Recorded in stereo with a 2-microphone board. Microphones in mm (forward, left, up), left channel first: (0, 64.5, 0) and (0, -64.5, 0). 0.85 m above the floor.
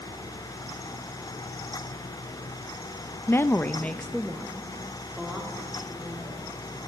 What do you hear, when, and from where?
3.3 s a woman speaking: 20° left (ahead or behind), 0.6 m; by 6.4 s 5° right (ahead or behind), 3 m